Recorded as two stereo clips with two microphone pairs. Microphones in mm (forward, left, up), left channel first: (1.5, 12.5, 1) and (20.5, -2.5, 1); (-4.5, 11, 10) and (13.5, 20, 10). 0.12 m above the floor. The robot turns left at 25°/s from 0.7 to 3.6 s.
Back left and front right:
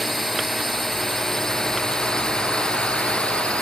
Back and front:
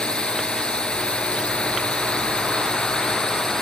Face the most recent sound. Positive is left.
turn(degrees=155)